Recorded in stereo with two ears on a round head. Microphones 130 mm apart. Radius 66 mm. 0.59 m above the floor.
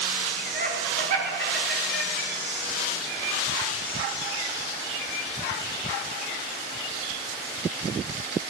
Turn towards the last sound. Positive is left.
turn(degrees=-60)  # may be behind; listen again after turning